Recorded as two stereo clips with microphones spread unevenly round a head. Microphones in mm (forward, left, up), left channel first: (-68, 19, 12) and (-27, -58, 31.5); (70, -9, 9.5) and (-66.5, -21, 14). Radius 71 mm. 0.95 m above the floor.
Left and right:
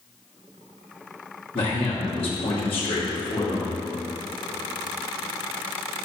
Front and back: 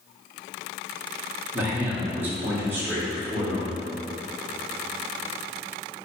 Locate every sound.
1.5 s a man speaking: 110° left, 2.5 m